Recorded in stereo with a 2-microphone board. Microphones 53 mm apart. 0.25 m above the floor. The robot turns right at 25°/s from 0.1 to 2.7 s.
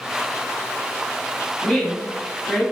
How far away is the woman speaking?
About 1.7 m.